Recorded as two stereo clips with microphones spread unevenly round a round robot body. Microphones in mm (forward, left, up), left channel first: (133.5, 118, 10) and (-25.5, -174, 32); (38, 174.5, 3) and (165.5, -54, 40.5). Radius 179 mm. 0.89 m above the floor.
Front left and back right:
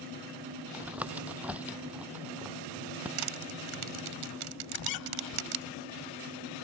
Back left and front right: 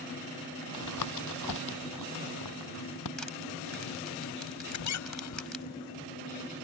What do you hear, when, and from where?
0.7 s tapping: 155° left
3.2 s crushing: 150° right
4.7 s a squeak: 100° left